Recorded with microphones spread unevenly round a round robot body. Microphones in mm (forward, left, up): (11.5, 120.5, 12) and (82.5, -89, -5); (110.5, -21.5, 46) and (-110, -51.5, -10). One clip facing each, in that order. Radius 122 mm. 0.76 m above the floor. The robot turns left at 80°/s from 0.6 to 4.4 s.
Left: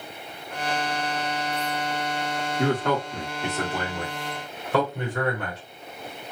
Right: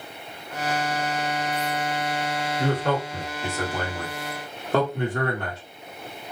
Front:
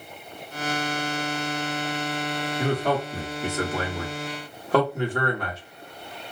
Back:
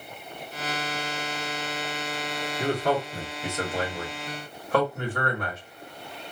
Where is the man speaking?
100° left, 1.5 m; by 5.6 s 45° right, 1.5 m.